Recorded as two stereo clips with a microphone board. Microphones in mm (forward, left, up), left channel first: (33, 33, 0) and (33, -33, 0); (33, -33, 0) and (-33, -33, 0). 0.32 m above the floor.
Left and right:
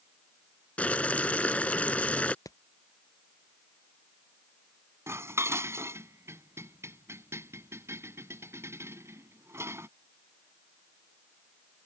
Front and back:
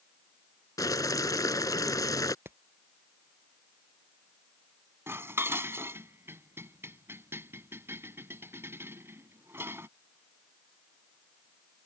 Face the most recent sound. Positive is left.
turn(degrees=-130)